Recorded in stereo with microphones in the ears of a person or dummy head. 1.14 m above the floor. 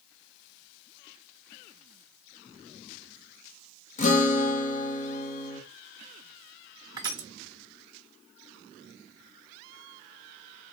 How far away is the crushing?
About 0.8 m.